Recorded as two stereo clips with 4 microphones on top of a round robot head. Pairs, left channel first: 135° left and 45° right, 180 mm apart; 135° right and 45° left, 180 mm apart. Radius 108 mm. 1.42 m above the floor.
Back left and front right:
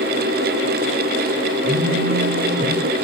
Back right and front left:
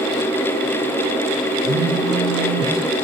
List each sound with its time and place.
1.6 s a phone buzzing: 50° left, 4 m